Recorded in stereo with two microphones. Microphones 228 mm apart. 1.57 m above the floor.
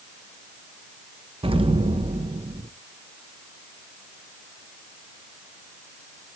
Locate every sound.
1.4 s an explosion: 25° right (ahead or behind), 0.8 m